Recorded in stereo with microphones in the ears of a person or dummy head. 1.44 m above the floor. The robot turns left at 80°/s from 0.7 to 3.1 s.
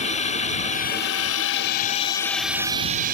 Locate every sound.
0.0 s a drone: 140° left; by 3.1 s 55° right